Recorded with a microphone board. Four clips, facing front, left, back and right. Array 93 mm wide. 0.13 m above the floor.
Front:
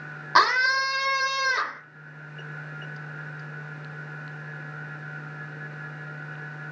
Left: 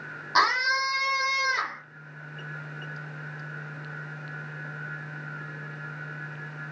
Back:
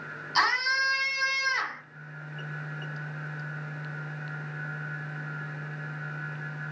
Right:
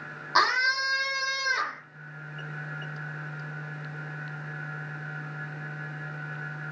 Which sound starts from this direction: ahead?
A scream, at 0.3 s.